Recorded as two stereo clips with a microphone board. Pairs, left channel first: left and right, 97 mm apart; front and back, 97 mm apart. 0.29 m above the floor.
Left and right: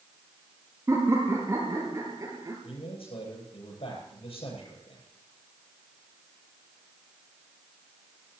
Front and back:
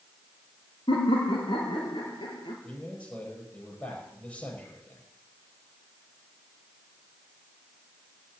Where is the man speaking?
75° left, 9 m.